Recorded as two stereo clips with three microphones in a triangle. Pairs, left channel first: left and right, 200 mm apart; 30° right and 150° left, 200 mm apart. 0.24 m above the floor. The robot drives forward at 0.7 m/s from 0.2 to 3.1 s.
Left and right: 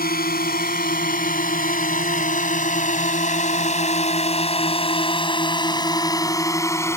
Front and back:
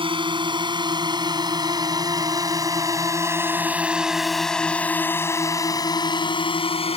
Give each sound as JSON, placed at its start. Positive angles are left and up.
{"t": 0.0, "sound": "a drone", "azimuth_deg": 95}